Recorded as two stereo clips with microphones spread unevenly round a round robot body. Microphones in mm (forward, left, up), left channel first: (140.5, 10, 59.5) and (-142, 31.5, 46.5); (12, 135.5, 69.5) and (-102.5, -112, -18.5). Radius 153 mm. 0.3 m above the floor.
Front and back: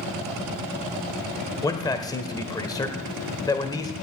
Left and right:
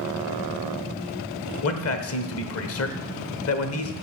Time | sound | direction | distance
1.6 | a man speaking | 65° left | 1.2 m